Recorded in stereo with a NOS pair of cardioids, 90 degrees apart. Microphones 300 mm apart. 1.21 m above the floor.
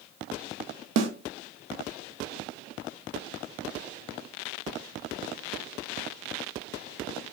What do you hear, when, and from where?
1.0 s a snare drum: 60° right, 1.1 m